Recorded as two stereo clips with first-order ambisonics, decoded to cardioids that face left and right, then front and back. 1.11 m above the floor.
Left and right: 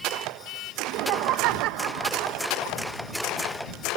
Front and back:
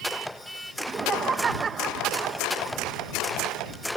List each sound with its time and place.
0.8 s laughter: 115° right